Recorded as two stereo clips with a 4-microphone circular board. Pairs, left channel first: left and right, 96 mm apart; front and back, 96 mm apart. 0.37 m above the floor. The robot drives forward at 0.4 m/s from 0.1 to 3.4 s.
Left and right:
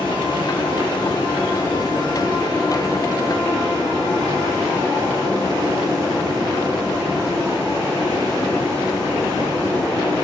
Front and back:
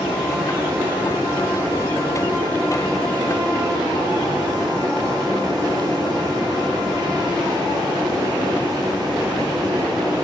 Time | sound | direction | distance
0.0 | running water | 105° left | 1.8 m